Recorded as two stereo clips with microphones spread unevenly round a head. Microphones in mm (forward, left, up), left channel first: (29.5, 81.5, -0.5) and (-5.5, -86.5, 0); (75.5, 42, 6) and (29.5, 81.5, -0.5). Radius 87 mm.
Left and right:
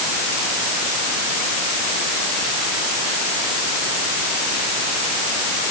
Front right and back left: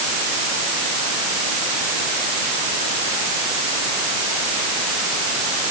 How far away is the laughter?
No laughter in this recording.